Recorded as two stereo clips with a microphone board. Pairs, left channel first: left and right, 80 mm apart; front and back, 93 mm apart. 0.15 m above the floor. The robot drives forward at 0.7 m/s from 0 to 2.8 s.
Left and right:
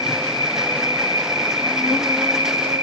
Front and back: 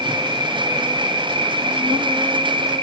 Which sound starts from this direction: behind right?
An insect, at 0.0 s.